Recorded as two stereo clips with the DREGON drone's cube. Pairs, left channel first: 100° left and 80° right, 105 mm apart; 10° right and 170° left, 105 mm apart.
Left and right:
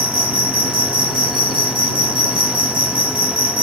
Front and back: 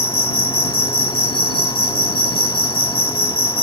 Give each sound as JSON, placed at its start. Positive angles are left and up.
{"t": 0.0, "sound": "an insect", "azimuth_deg": -40}